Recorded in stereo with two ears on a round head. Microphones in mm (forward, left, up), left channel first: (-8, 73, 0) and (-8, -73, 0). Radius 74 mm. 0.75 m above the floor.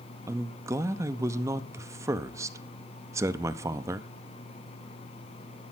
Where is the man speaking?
20° right (ahead or behind), 0.7 m.